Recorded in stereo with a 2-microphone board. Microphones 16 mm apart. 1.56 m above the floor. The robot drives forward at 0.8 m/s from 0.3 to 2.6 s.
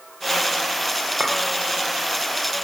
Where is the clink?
75° right (ahead or behind), 3.5 m.